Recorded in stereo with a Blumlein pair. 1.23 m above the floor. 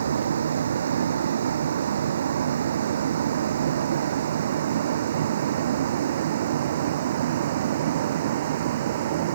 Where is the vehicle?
65° right; by 9.3 s 55° right.